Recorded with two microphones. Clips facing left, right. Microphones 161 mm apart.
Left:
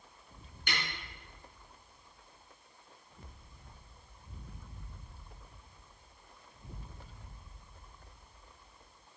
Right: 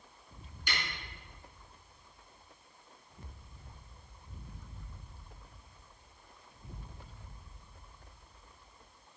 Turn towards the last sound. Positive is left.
turn(degrees=55)  # may be behind; listen again after turning